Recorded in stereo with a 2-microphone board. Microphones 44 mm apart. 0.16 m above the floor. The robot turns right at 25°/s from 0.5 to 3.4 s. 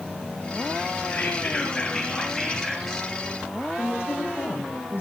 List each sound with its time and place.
1.1 s whispering: 135° left, 3 m; by 3.1 s 175° right, 3 m
3.8 s a woman speaking: 60° left (ahead or behind), 8.5 m